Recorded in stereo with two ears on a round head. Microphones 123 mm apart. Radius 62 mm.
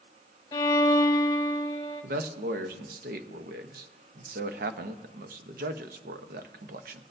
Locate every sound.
0.5 s a violin: 30° left (ahead or behind), 1.2 m
2.0 s a man speaking: 75° right (ahead or behind), 0.8 m